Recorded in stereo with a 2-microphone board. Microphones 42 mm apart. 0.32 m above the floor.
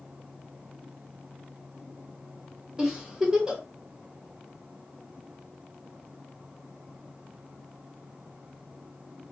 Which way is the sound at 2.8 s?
15° right (ahead or behind).